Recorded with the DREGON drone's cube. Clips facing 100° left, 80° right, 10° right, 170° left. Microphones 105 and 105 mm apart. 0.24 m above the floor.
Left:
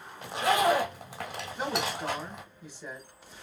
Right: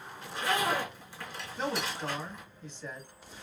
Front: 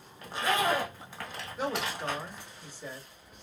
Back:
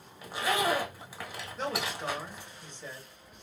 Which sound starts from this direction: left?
A zipper, at 0.2 s.